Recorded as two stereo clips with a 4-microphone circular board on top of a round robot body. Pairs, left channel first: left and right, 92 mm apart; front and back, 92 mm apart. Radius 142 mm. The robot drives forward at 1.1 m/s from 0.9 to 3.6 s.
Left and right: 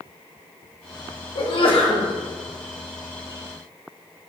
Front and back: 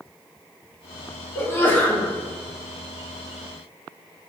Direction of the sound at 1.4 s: 60° left.